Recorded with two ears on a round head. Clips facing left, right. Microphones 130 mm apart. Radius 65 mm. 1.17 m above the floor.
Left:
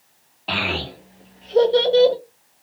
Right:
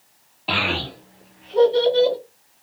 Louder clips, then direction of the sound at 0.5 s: Right 1 dB; 5° right (ahead or behind).